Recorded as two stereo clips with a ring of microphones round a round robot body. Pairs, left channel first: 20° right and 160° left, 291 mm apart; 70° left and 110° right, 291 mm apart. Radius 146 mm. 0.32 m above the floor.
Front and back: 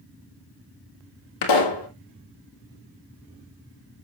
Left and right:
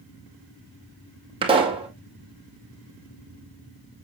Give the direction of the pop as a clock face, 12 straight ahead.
1 o'clock.